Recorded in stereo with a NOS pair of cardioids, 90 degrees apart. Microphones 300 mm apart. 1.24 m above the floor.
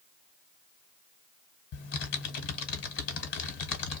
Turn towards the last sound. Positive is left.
turn(degrees=60)